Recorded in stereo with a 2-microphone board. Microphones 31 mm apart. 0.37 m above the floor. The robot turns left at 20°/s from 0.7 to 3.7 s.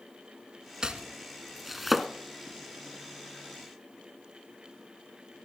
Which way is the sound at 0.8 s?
25° right (ahead or behind).